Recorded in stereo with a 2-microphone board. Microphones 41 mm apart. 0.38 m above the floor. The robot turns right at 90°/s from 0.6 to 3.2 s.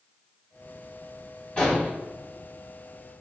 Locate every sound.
1.6 s an explosion: 25° left, 2.0 m; by 1.9 s 55° left, 2.0 m